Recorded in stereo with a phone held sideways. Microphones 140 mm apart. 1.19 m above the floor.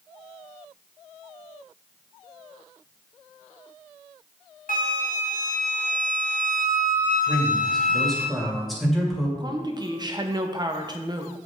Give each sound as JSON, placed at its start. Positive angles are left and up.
{"t": 4.7, "sound": "a flute", "side_deg": 80, "distance_m": 0.9}
{"t": 7.3, "sound": "a man speaking", "side_deg": 0, "distance_m": 2.0}
{"t": 9.4, "sound": "a woman speaking", "side_deg": -30, "distance_m": 0.9}